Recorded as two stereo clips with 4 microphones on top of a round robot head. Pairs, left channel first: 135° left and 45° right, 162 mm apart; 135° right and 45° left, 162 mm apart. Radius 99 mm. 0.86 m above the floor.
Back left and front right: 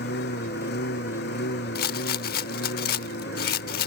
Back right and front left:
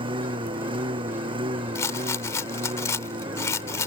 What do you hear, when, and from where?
0.0 s a lawn mower: 105° left
1.8 s a rattle: 155° left